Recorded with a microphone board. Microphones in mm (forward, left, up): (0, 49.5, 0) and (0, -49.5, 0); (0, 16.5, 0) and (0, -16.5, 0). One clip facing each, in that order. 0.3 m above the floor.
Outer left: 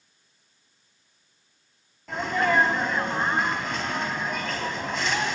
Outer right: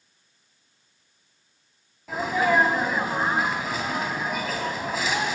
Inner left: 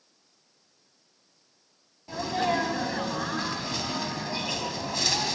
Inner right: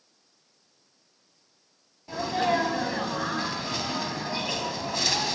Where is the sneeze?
5° right (ahead or behind), 2.5 m.